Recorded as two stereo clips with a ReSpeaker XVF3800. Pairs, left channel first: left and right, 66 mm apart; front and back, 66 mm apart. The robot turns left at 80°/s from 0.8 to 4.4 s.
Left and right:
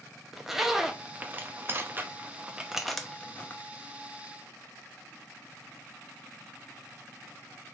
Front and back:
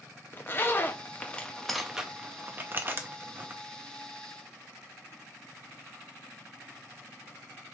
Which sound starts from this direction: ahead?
A zipper, at 0.3 s.